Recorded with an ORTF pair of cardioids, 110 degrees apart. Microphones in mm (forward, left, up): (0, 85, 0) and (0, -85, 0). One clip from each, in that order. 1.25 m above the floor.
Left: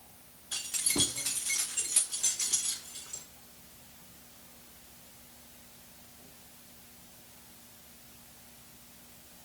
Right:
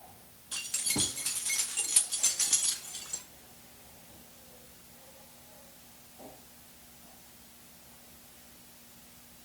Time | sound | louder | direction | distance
0.5 | keys jangling | left 1 dB | 5° left | 1.5 m